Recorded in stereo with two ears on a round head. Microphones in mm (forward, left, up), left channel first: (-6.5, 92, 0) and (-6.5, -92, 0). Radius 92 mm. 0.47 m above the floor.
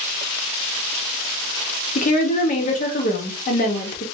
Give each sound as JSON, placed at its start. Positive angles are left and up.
{"t": 1.9, "sound": "a woman speaking", "side_deg": 40, "distance_m": 1.1}